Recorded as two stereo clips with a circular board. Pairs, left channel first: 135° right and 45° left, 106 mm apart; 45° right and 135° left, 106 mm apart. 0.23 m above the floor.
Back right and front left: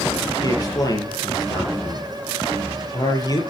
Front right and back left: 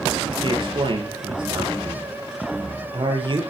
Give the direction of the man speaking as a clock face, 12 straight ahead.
6 o'clock.